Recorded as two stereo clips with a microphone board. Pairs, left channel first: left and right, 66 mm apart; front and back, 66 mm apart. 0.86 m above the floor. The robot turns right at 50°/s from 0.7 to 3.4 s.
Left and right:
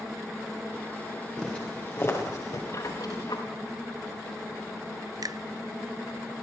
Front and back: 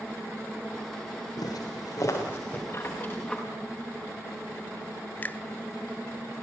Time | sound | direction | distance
1.4 | footsteps | 5° left | 7 m
2.7 | a squeak | 50° left | 5 m
5.2 | a finger snap | 65° right | 0.5 m